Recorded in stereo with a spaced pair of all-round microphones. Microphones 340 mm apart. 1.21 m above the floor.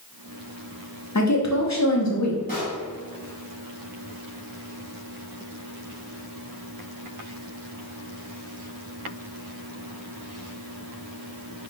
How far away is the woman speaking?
About 0.8 m.